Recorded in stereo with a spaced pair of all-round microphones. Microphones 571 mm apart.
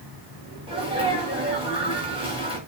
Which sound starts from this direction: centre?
A sneeze, at 0.7 s.